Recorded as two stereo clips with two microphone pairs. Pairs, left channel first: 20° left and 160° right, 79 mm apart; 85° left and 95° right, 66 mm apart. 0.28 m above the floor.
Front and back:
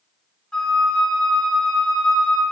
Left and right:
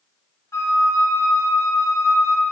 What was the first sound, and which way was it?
A flute, 95° left.